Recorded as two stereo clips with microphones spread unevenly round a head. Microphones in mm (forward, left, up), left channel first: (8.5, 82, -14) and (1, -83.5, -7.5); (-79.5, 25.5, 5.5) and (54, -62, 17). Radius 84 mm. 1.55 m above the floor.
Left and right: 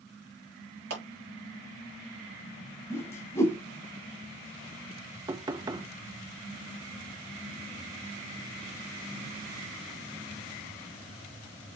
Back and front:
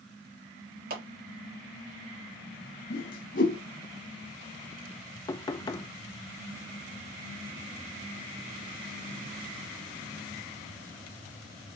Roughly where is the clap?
Ahead right.